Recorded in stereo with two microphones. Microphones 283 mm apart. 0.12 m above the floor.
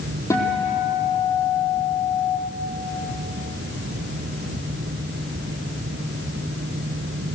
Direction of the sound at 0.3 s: 10° left (ahead or behind).